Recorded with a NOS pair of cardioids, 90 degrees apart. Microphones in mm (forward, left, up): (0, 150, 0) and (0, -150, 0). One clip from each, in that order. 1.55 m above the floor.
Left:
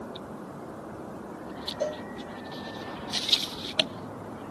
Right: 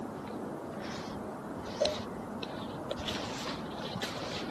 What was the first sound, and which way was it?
A cowbell, 5° left.